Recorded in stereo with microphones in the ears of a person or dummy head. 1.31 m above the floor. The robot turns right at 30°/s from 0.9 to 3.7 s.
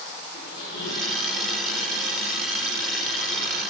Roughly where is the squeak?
Left.